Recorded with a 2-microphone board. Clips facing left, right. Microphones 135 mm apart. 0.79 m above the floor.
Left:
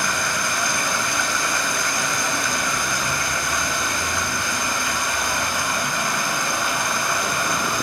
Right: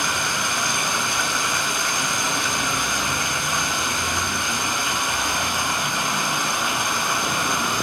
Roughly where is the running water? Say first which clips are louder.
Left 1 dB; centre.